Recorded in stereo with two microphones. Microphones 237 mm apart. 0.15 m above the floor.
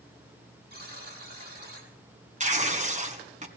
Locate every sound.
0.7 s a buzzer: 40° right (ahead or behind), 6 m
2.4 s tearing paper: 30° right (ahead or behind), 1.6 m